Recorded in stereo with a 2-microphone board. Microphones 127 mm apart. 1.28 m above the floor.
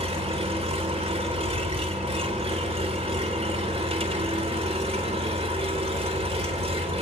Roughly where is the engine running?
Right.